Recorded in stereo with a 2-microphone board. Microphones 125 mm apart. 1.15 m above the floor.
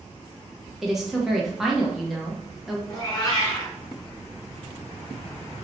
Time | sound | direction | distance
0.8 | a woman speaking | 5° right (ahead or behind) | 0.9 m
2.9 | a cat meowing | 30° left (ahead or behind) | 1.2 m